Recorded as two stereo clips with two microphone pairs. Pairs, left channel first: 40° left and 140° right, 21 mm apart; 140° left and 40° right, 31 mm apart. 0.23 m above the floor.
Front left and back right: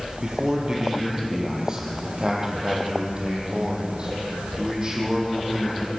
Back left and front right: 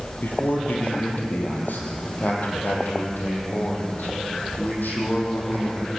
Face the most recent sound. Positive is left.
turn(degrees=165)